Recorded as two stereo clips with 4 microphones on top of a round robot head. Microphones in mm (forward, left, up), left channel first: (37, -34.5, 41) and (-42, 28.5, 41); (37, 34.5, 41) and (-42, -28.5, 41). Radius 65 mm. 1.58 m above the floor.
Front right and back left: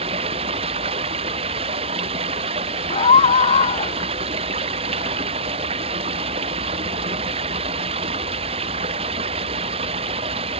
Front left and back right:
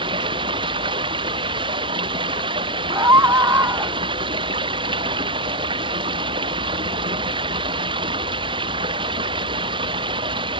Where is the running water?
175° left.